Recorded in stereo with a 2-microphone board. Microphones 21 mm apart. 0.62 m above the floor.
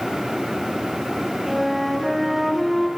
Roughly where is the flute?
Centre.